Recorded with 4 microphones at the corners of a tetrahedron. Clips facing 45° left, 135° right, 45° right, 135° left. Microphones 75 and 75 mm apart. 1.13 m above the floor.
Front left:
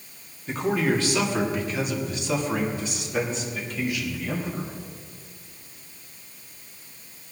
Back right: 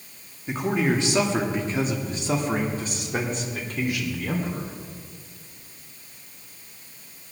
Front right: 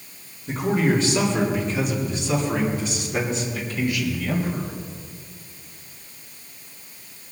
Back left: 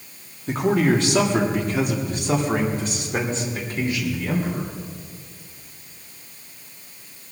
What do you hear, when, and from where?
0.5 s a man speaking: 150° left, 2 m; by 4.7 s 165° right, 3.5 m